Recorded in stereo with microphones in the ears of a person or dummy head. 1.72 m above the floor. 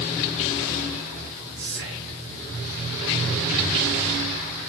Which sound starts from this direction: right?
Whispering, at 1.6 s.